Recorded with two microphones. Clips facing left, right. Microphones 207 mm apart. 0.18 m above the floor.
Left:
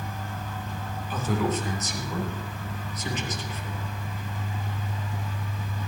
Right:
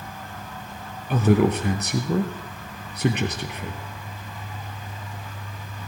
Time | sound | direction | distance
1.1 | a man speaking | 65° right (ahead or behind) | 3 m